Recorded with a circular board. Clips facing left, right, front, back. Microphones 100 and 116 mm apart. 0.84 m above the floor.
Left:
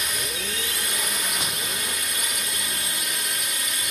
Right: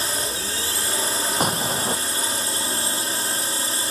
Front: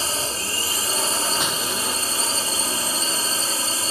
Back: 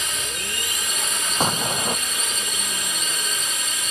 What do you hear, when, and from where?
0.0 s a drone: 45° right
1.4 s an explosion: 130° right